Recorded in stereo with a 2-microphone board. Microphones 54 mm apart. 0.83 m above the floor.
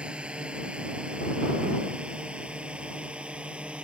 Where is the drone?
20° right (ahead or behind).